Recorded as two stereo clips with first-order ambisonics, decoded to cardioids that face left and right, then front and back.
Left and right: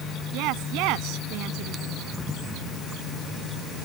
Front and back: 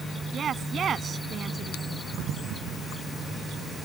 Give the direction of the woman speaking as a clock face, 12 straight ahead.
4 o'clock.